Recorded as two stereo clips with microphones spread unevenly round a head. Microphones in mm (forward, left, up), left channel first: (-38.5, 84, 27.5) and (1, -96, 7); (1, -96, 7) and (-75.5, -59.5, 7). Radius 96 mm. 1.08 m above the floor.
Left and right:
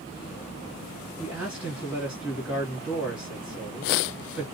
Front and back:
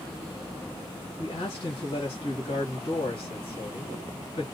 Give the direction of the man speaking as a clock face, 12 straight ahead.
12 o'clock.